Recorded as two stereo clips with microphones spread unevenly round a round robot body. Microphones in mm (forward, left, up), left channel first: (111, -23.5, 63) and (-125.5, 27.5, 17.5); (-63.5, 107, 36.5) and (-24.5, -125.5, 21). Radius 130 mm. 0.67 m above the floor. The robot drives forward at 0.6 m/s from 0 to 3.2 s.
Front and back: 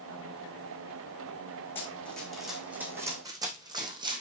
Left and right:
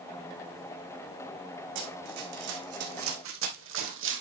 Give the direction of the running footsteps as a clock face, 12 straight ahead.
3 o'clock.